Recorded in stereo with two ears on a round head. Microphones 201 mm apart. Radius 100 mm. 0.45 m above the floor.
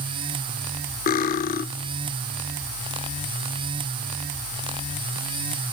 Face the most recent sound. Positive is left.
turn(degrees=40)  # may be behind; listen again after turning